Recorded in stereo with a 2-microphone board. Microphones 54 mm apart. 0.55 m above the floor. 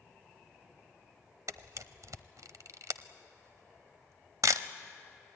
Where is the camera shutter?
80° right, 0.8 m.